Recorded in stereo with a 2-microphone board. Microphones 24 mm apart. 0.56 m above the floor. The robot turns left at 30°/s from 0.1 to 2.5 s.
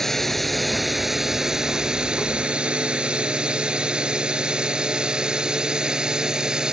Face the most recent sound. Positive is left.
turn(degrees=-30)  # may be behind; listen again after turning